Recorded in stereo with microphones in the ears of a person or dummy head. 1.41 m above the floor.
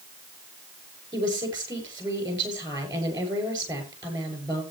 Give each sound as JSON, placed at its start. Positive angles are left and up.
{"t": 1.1, "sound": "a woman speaking", "side_deg": -25, "distance_m": 6.0}